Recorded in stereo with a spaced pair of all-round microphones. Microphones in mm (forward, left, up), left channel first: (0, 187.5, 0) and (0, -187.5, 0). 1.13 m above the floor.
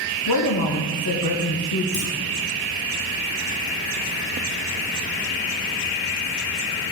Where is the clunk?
60° left (ahead or behind), 1.9 m.